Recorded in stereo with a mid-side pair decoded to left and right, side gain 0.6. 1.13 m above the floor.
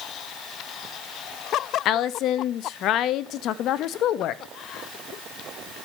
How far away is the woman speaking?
About 1.0 m.